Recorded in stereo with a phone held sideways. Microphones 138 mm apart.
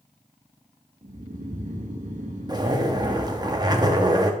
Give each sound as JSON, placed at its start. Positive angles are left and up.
{"t": 1.0, "sound": "snoring", "side_deg": -65, "distance_m": 1.0}
{"t": 2.5, "sound": "a zipper", "side_deg": -30, "distance_m": 0.8}